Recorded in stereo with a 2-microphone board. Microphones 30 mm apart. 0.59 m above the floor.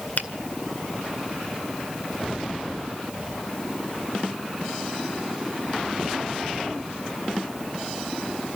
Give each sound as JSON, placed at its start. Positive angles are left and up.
{"t": 0.2, "sound": "a finger snap", "side_deg": 60, "distance_m": 2.0}